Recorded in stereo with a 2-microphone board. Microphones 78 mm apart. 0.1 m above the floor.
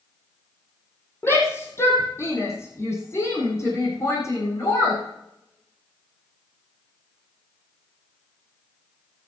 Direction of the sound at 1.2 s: 30° left (ahead or behind).